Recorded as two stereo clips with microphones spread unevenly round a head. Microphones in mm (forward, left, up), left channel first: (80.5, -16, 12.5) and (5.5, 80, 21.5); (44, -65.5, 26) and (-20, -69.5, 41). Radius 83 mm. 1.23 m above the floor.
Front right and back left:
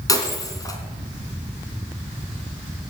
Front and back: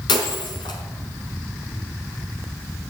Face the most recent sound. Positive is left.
turn(degrees=10)